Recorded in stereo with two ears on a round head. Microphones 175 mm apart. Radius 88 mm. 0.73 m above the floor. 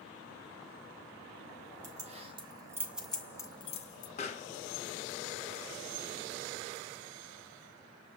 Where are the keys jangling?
40° right (ahead or behind), 1.0 m; by 4.1 s 45° left (ahead or behind), 0.7 m.